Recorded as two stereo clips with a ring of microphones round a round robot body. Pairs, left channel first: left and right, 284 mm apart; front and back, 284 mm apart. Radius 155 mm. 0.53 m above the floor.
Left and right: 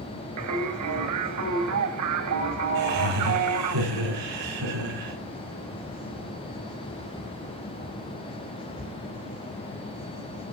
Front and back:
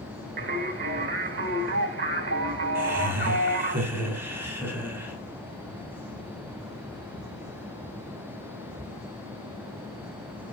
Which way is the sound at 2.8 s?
100° right.